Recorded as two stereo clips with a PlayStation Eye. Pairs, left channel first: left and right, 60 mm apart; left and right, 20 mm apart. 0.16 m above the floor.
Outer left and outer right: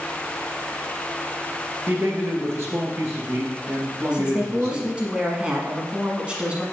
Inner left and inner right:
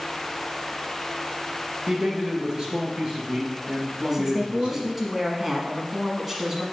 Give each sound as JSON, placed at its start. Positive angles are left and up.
{"t": 1.9, "sound": "a man speaking", "side_deg": -40, "distance_m": 2.5}
{"t": 4.1, "sound": "a woman speaking", "side_deg": -20, "distance_m": 1.0}